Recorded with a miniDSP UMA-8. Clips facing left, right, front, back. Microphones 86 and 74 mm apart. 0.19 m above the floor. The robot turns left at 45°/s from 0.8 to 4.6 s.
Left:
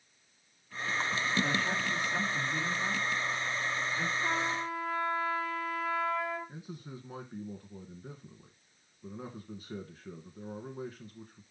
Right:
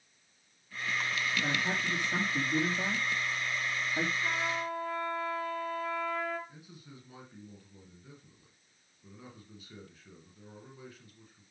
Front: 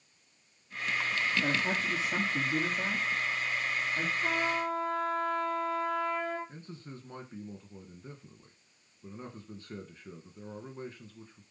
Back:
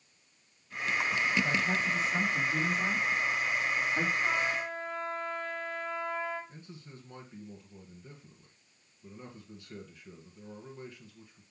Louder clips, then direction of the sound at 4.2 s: Left 1 dB, front 1 dB; 25° left.